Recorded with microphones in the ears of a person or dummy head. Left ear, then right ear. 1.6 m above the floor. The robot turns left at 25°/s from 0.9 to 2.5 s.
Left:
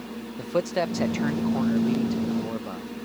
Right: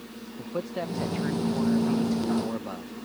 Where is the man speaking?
30° left; by 2.9 s 10° right.